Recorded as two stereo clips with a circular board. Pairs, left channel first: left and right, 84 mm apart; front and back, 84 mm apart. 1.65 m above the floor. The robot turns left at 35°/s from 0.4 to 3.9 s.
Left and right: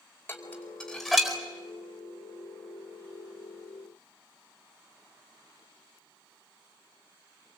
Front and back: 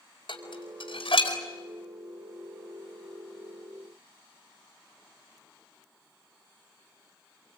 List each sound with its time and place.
0.3 s dishes clattering: 25° left, 4.5 m; by 1.4 s 10° right, 4.5 m